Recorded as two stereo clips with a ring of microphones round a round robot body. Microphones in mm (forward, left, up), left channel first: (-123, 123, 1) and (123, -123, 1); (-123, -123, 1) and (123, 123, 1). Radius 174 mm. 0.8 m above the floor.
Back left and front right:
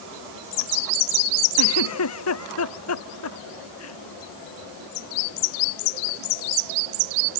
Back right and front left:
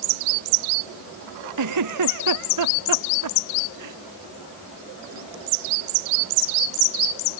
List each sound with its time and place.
1.6 s a giggle: 85° left